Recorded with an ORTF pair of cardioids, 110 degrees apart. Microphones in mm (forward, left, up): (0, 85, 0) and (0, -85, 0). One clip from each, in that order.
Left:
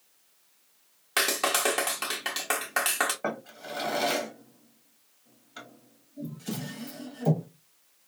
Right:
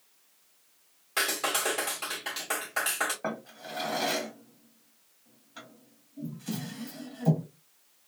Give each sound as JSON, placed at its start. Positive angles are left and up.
{"t": 1.2, "sound": "a clap", "azimuth_deg": 45, "distance_m": 1.4}
{"t": 3.2, "sound": "a drawer", "azimuth_deg": 20, "distance_m": 1.3}